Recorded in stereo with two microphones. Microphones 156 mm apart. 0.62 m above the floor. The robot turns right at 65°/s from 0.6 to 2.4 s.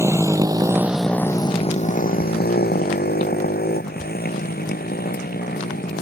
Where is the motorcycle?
15° right (ahead or behind); by 6.0 s 75° left (ahead or behind).